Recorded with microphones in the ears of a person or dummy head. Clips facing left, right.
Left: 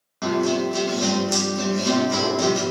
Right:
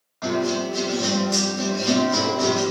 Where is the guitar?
40° left (ahead or behind), 1.1 m.